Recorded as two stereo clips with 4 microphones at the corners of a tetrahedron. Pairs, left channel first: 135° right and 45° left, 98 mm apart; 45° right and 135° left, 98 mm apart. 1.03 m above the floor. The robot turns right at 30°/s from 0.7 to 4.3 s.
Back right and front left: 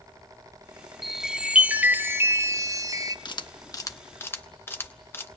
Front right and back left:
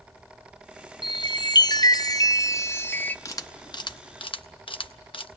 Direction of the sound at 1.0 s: 45° right.